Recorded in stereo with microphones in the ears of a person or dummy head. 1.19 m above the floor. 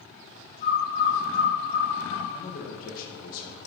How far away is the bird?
About 2.5 m.